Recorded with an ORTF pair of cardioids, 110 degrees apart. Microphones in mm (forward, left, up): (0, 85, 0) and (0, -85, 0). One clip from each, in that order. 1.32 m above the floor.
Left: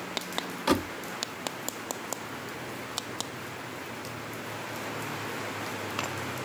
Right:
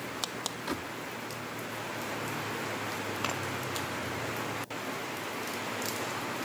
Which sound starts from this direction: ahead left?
A door slam, at 0.7 s.